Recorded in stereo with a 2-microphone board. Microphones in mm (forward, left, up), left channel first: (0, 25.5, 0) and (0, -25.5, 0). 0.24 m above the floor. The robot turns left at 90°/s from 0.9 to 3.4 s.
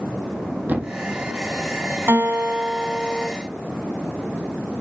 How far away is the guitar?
About 1.8 m.